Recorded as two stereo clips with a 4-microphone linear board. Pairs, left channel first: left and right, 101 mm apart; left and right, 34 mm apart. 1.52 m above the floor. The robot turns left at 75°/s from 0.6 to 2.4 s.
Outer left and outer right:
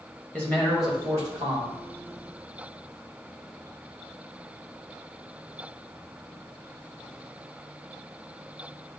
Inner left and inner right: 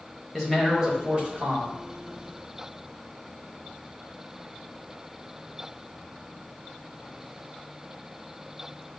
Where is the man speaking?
15° left, 1.5 m; by 1.7 s 75° right, 1.5 m.